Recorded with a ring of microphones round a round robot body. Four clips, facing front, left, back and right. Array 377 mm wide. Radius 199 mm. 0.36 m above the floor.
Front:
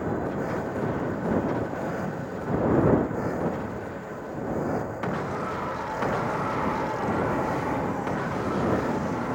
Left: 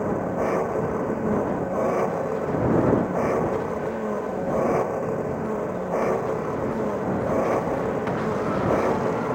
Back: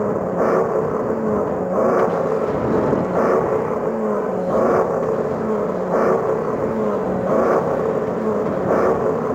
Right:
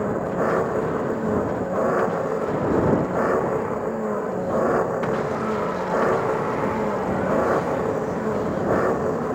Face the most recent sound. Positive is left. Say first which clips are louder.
# right 1 dB, back 10 dB
turn(degrees=-170)